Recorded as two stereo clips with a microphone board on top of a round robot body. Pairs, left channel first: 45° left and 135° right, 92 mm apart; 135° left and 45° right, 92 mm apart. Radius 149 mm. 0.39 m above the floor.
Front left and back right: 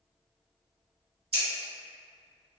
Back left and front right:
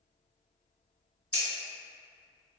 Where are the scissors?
150° right, 1.5 m.